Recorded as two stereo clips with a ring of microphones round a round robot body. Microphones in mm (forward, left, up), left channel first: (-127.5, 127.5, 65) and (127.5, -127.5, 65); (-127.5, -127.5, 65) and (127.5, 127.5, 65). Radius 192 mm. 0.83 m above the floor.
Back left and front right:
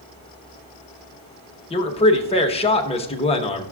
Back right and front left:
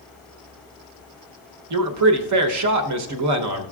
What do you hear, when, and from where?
1.7 s a man speaking: 65° left, 0.9 m